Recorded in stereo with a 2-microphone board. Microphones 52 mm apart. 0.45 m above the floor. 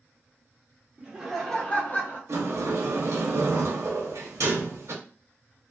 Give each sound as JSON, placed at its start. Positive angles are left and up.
{"t": 1.0, "sound": "laughter", "side_deg": -20, "distance_m": 1.0}
{"t": 2.3, "sound": "a sliding door", "side_deg": -70, "distance_m": 0.7}